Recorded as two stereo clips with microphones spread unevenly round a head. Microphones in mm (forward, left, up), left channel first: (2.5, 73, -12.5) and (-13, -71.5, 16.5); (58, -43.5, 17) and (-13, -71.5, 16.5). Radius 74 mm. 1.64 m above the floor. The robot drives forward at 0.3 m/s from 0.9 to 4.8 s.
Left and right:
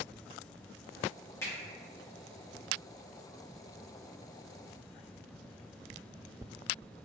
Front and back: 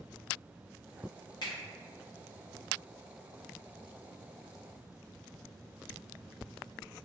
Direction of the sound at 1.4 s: 10° left.